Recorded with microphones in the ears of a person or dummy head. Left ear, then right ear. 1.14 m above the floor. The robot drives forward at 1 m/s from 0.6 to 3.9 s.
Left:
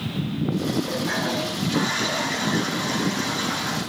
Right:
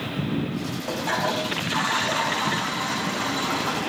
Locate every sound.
0.9 s a toilet flushing: 45° right (ahead or behind), 5.5 m; by 3.8 s 30° right (ahead or behind), 7.5 m